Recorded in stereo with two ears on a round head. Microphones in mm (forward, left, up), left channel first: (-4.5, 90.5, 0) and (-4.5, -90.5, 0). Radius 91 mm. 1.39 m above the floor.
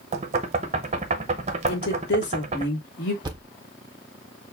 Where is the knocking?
35° right (ahead or behind), 0.7 m.